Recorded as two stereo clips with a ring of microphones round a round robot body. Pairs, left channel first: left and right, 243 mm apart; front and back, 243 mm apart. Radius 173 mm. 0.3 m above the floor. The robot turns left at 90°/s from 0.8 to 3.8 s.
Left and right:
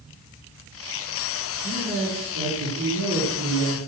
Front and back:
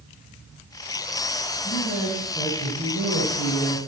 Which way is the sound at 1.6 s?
10° left.